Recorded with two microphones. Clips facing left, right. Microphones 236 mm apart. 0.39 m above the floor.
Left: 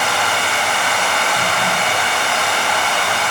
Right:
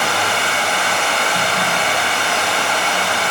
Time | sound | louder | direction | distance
0.0 | running water | right 1 dB | 30° right (ahead or behind) | 0.7 m